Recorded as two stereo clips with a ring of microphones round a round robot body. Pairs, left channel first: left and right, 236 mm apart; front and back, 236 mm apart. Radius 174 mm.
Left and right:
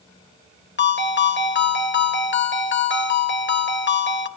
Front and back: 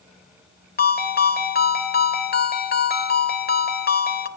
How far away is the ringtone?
About 2.5 m.